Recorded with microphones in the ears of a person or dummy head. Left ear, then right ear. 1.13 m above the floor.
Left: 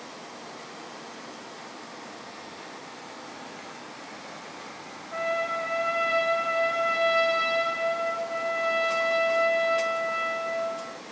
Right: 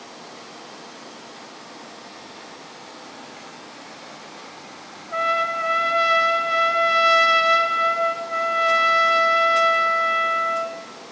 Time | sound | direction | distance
5.1 | a trumpet | 45° right (ahead or behind) | 4.5 m